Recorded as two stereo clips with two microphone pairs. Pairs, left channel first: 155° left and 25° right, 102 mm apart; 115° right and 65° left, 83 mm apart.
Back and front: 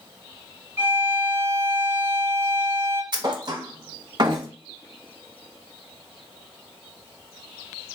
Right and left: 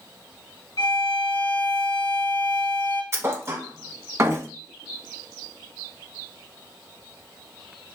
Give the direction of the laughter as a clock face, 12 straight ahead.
I don't hear laughter.